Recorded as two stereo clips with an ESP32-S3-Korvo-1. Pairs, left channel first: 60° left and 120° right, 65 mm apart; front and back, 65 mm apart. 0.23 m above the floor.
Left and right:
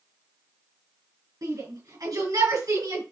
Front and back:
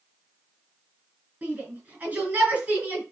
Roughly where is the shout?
Behind right.